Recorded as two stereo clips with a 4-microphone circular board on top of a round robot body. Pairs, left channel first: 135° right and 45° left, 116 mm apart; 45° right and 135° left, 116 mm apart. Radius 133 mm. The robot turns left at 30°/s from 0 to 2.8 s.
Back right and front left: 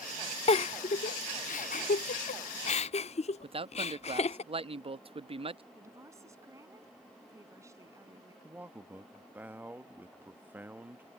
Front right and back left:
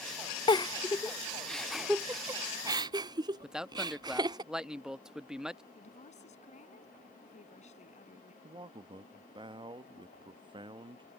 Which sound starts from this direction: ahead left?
A man speaking, at 3.4 s.